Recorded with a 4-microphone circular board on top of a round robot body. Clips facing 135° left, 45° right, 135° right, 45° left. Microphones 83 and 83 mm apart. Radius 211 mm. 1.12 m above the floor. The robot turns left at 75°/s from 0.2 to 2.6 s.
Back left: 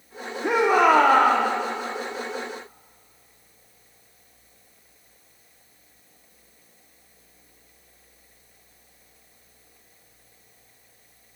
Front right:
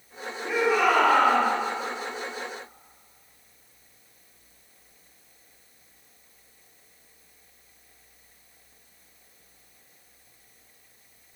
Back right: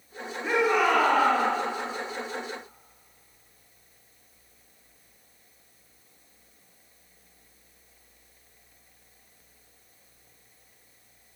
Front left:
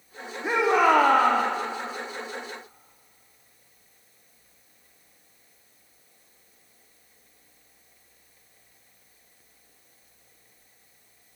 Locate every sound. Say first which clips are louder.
0.4 s a shout: back left 5 dB, front left 3 dB; 120° left, 3.5 m; by 1.4 s 45° left, 3.5 m